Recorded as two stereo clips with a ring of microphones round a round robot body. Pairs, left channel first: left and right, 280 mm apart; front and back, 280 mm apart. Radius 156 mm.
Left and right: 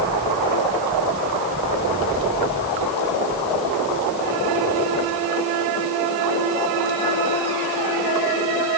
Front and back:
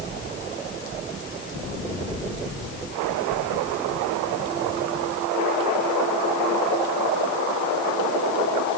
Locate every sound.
Only background noise.